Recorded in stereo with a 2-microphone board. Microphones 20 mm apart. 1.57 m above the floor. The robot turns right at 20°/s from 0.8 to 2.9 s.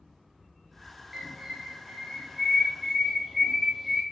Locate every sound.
1.1 s a bird: 165° right, 1.1 m; by 4.0 s 130° right, 1.1 m